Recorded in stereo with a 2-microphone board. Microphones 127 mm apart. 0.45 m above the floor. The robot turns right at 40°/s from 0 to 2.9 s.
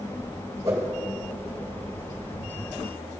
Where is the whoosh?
30° right (ahead or behind), 1.5 m; by 0.9 s 20° right (ahead or behind), 1.5 m.